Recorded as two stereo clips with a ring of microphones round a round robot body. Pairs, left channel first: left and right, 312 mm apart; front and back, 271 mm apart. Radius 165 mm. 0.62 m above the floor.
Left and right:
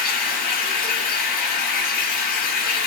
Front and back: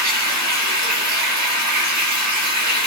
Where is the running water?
155° left, 8 m.